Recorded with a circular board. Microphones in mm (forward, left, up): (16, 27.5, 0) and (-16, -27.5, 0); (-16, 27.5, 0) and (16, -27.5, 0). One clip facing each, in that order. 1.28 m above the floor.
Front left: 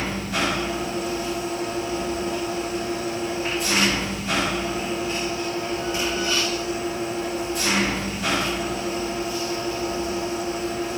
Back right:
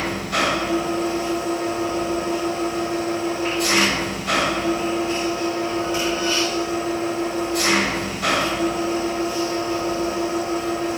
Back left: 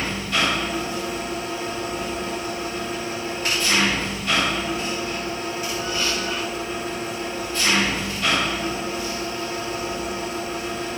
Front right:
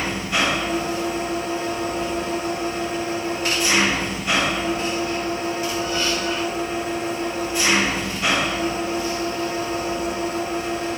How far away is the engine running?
About 6.5 m.